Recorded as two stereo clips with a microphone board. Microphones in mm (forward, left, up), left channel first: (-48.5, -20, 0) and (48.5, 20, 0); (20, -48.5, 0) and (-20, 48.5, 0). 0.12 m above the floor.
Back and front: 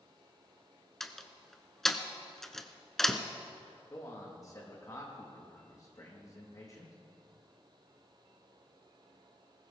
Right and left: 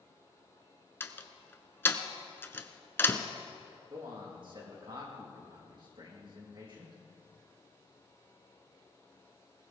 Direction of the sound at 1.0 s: 75° right.